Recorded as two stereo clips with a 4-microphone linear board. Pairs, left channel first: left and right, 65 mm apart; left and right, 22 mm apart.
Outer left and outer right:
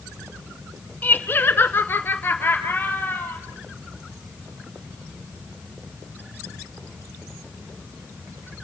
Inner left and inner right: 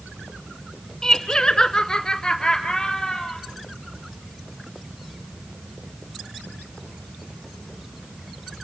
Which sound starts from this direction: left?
Laughter, at 1.0 s.